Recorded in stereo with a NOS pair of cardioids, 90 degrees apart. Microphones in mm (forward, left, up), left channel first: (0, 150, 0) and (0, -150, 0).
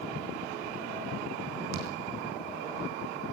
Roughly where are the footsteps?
Ahead right.